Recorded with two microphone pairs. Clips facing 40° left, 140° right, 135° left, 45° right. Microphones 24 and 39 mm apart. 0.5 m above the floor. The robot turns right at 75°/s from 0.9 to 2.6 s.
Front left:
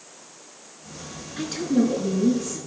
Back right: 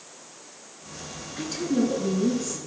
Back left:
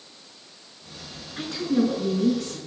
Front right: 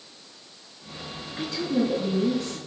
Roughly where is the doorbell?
No doorbell in this recording.